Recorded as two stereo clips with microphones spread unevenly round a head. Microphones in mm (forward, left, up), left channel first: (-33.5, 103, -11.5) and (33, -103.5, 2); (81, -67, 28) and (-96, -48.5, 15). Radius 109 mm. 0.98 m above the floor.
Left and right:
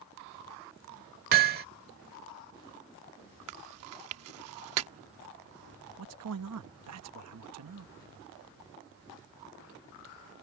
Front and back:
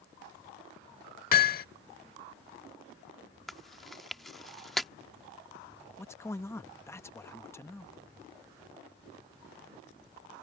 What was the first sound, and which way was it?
Hammering, 35° right.